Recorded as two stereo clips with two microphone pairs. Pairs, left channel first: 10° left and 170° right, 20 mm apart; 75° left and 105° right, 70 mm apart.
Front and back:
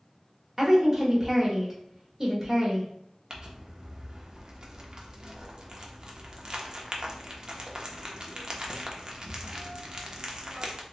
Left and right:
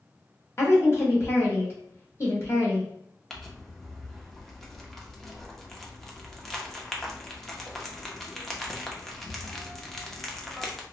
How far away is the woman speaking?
About 1.2 m.